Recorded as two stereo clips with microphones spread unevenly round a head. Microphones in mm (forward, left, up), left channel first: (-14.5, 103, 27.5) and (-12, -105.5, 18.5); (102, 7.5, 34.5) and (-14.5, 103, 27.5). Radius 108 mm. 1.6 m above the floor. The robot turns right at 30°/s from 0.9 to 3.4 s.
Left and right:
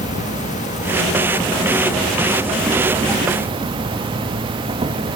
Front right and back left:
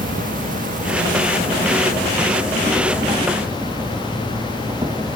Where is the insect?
135° left, 1.2 m; by 5.2 s 150° right, 1.2 m.